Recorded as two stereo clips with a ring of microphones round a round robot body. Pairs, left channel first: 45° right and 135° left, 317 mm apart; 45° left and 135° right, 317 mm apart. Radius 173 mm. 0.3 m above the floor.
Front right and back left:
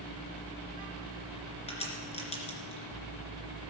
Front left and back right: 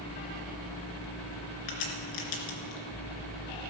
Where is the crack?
25° left, 3 m.